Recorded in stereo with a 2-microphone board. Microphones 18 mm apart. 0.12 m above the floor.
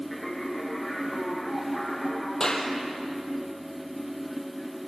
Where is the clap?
35° left (ahead or behind), 3.5 m.